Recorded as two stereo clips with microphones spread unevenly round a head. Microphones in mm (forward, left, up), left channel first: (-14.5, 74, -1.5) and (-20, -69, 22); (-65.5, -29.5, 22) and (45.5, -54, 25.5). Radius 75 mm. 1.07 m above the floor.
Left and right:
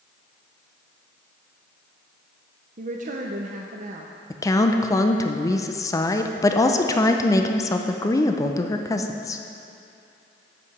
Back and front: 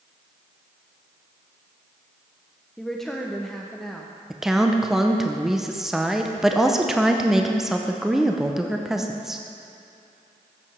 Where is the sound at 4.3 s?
75° left, 0.6 m.